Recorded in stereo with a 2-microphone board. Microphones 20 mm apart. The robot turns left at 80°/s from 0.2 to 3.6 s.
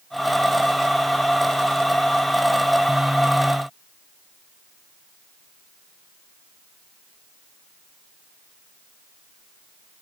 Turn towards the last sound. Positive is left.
No sound to turn to.